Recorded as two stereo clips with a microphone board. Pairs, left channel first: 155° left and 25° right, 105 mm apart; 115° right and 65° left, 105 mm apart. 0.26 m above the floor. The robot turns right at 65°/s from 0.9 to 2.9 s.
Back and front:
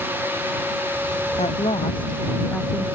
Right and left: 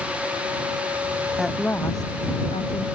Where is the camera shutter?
No camera shutter in this recording.